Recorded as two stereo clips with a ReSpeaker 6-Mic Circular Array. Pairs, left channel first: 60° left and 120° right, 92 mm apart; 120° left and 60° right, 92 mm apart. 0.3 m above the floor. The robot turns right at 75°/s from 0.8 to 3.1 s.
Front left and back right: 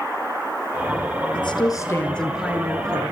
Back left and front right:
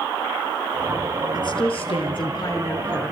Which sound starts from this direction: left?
A woman speaking, at 1.3 s.